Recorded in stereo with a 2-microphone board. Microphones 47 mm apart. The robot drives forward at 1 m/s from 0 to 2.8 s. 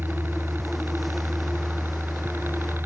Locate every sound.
0.0 s a helicopter: 50° right (ahead or behind); by 2.9 s 55° right (ahead or behind)